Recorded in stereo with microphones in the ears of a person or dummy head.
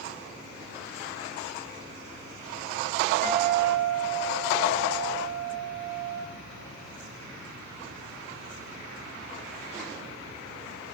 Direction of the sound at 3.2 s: 15° left (ahead or behind).